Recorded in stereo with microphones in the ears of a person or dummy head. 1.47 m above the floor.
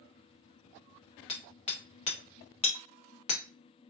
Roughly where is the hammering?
Left.